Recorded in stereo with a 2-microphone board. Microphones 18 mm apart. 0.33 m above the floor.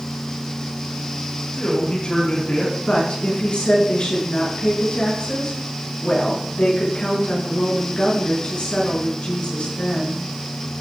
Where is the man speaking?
75° left (ahead or behind), 6 m.